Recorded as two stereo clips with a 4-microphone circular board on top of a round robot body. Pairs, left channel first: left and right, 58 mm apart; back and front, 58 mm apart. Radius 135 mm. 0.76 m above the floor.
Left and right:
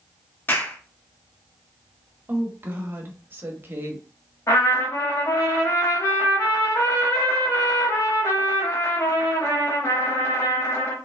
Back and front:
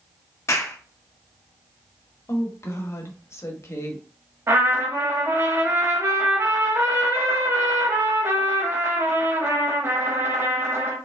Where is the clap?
145° left, 1.6 m.